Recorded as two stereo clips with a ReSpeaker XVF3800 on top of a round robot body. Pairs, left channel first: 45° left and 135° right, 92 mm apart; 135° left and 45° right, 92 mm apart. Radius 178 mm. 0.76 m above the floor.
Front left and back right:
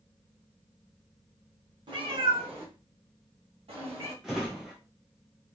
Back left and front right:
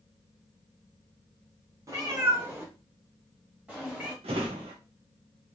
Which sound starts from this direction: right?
A cat meowing, at 1.9 s.